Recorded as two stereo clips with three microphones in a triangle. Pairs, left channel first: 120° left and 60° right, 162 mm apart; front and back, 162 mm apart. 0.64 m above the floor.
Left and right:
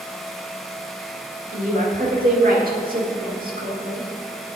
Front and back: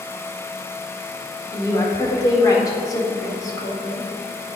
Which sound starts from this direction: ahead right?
A woman speaking, at 1.5 s.